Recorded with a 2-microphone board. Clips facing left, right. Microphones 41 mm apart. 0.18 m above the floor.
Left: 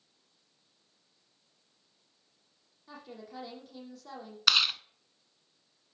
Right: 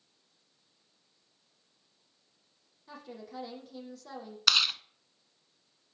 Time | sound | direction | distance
2.9 | a woman speaking | centre (ahead or behind) | 6.5 m
4.5 | chewing | 5° left (ahead or behind) | 0.5 m